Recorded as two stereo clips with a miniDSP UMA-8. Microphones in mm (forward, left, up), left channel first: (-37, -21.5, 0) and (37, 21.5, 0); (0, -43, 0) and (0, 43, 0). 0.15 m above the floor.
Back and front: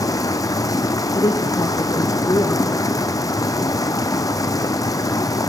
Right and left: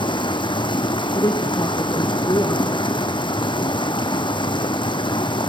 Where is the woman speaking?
115° right, 2.5 m.